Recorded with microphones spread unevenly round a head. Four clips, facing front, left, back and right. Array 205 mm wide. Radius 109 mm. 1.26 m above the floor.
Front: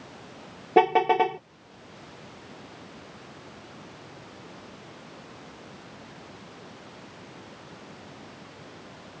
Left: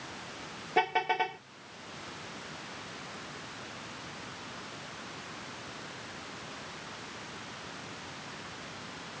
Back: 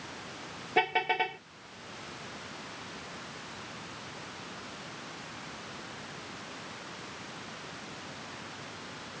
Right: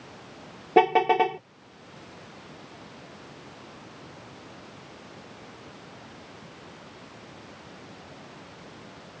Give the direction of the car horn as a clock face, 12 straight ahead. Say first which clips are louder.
Right 10 dB, front 10 dB; 2 o'clock.